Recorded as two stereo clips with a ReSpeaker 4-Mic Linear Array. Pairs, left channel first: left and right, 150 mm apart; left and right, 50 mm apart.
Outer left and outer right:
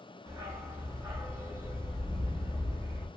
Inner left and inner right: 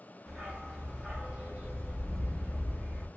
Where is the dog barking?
20° right (ahead or behind), 0.9 m.